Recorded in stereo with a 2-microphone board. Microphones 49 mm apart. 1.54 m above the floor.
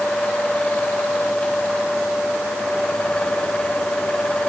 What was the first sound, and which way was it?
Only background noise.